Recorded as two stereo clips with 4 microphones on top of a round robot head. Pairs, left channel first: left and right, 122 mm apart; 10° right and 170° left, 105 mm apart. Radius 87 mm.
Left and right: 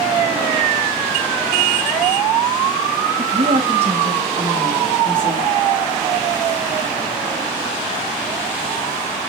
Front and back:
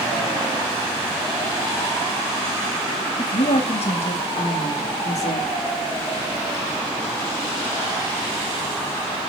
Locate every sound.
3.2 s a woman speaking: 50° right, 1.3 m; by 5.5 s 35° right, 2.5 m